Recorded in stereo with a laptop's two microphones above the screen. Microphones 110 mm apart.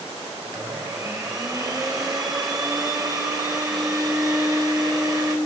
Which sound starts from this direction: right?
A blender, at 0.5 s.